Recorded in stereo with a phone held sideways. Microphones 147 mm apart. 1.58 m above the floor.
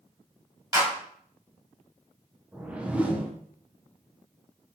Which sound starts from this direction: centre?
A whoosh, at 2.5 s.